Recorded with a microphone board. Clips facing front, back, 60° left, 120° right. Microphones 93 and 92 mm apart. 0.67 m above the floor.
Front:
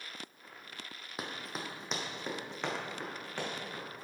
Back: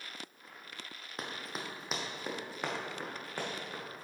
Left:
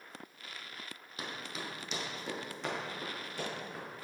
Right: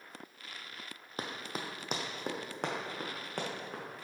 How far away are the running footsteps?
About 1.2 m.